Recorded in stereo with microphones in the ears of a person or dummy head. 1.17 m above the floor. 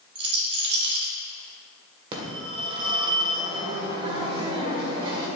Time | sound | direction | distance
0.1 | a rattle | 30° right (ahead or behind) | 2.5 m
2.1 | a phone ringing | 30° right (ahead or behind) | 2 m